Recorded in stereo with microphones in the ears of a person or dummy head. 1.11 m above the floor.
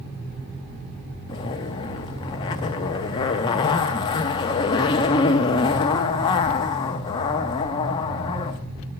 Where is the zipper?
20° left (ahead or behind), 0.6 m.